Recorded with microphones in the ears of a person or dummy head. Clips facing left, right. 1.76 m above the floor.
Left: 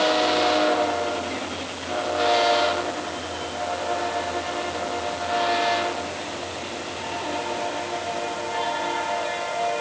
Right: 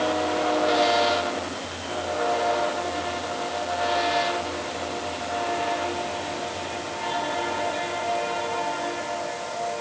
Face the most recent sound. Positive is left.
No sound to turn to.